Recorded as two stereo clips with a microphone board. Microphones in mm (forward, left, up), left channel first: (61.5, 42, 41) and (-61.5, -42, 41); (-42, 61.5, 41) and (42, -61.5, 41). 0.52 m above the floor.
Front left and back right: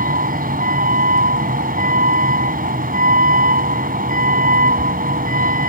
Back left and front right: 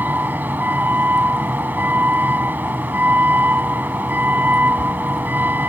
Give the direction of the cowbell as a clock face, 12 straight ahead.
No cowbell in this recording.